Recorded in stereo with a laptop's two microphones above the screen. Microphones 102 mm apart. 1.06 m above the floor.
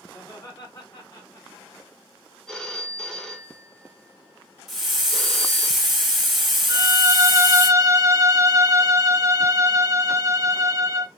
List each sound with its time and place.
0.1 s laughter: 35° left (ahead or behind), 1.7 m; by 1.9 s 45° left (ahead or behind), 0.9 m
2.5 s a phone ringing: 5° left (ahead or behind), 0.7 m
4.7 s a hiss: 5° right (ahead or behind), 1.5 m
6.7 s a violin: 30° right (ahead or behind), 0.6 m